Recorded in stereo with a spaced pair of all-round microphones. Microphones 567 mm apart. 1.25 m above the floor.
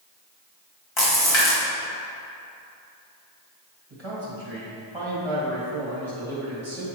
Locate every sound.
1.0 s a splash: 55° left (ahead or behind), 1.8 m
3.9 s a man speaking: 50° right (ahead or behind), 2.0 m